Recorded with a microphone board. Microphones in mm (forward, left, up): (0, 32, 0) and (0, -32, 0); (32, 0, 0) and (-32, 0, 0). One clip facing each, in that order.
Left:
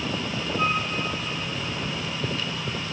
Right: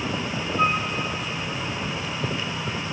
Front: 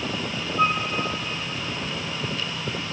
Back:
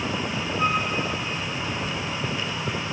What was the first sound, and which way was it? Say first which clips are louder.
A flute: right 3 dB, front 2 dB; 20° right.